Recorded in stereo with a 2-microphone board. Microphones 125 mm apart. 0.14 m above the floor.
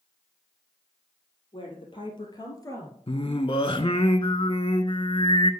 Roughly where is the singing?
Left.